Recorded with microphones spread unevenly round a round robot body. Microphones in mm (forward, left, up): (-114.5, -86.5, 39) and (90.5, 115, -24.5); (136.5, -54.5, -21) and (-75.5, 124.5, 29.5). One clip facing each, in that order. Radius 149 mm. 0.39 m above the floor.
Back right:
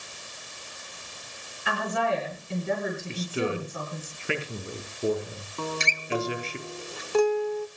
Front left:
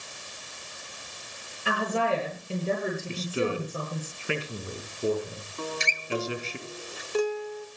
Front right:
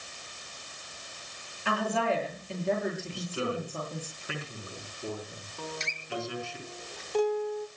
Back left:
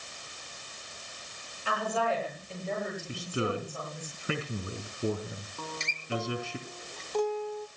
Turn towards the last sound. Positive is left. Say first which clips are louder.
# back right 2 dB, front right 5 dB
turn(degrees=-110)